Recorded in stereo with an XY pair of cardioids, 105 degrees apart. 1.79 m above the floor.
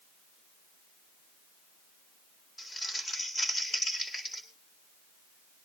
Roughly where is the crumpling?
Ahead left.